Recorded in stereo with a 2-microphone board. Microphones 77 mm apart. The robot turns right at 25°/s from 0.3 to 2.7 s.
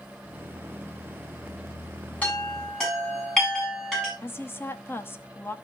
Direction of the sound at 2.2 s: 20° left (ahead or behind).